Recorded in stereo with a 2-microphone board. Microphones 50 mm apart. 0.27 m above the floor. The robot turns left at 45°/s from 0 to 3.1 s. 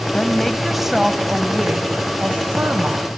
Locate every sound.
0.1 s a woman speaking: 25° left, 1.8 m; by 3.1 s 110° right, 1.8 m